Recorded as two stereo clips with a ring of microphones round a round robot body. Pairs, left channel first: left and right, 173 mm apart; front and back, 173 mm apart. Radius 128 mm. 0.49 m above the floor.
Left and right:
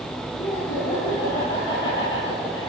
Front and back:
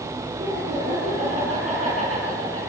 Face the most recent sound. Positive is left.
turn(degrees=125)